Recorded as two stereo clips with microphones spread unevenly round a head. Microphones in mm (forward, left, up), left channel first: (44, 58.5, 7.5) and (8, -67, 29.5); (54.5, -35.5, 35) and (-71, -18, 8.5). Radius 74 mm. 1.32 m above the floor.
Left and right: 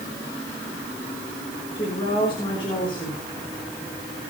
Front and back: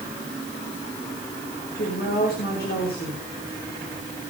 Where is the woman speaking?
20° left, 5.5 m.